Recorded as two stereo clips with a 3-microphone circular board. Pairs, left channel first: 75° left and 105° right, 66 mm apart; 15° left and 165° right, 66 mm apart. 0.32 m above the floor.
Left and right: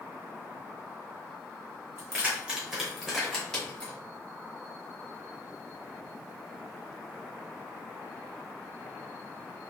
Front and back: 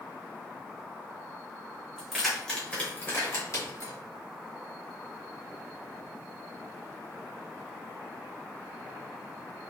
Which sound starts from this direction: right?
Keys jangling, at 2.0 s.